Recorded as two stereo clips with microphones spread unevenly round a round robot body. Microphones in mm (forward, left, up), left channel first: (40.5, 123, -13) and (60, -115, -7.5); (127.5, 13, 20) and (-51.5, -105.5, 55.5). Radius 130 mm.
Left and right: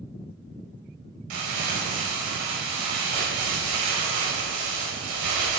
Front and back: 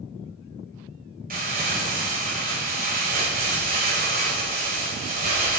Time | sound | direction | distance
1.3 | crumpling | 100° right | 5 m